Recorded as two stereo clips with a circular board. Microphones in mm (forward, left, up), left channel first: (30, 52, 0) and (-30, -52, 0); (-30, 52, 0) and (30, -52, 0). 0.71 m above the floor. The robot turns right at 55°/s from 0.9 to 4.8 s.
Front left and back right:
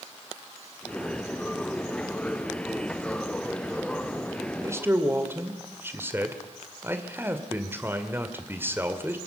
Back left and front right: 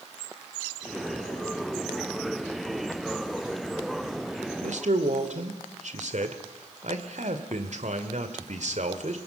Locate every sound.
4.6 s a man speaking: 60° right, 2.5 m; by 9.2 s 50° right, 2.5 m